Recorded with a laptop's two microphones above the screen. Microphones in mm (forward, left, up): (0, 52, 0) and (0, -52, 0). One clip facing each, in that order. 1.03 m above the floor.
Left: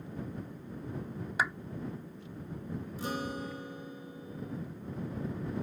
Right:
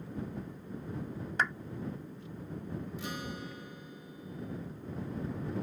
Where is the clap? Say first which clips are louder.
Even; 5° left (ahead or behind).